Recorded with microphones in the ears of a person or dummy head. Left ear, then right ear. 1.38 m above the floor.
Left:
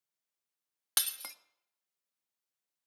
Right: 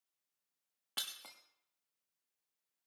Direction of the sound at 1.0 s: 55° left (ahead or behind).